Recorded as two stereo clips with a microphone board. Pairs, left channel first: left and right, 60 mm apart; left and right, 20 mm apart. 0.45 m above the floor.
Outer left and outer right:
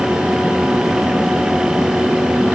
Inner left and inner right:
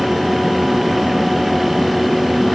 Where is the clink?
No clink in this recording.